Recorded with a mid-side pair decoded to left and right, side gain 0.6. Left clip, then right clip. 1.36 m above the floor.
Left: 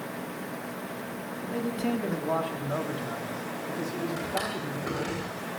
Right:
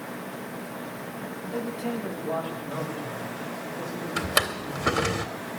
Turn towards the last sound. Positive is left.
turn(degrees=-55)